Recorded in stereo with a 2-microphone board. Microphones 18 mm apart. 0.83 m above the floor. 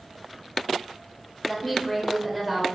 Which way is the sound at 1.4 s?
10° left (ahead or behind).